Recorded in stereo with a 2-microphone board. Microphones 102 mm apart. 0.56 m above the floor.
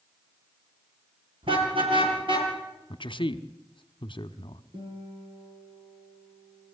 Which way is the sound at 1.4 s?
60° right (ahead or behind).